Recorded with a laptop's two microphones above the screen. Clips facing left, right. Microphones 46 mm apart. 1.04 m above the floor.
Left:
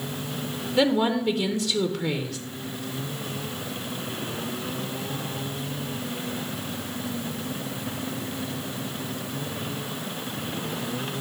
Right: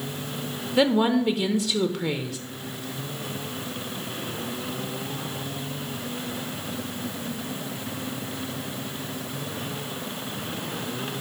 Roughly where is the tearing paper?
I don't hear tearing paper.